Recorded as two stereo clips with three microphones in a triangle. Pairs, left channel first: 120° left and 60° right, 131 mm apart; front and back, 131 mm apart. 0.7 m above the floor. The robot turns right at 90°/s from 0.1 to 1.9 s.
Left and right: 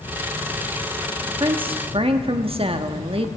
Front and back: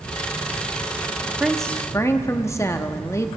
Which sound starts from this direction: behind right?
A woman speaking, at 1.3 s.